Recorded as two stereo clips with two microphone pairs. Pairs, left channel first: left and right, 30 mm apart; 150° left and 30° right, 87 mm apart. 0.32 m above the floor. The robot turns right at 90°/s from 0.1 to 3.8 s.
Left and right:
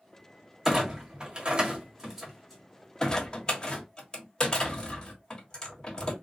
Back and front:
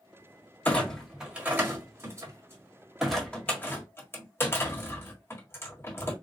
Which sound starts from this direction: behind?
A clunk, at 0.7 s.